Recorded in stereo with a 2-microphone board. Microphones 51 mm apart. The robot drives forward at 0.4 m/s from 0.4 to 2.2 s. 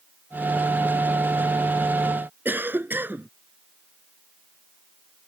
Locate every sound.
2.5 s a cough: 40° right (ahead or behind)